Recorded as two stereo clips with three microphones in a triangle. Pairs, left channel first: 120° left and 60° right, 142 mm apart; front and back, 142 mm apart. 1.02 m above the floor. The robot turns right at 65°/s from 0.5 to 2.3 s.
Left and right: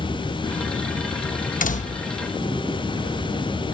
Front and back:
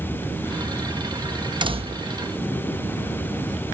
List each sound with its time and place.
1.6 s a door slam: 125° left; by 2.1 s 155° left